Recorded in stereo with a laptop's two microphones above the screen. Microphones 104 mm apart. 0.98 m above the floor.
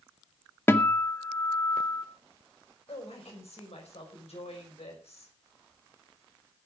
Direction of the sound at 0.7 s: 20° left (ahead or behind).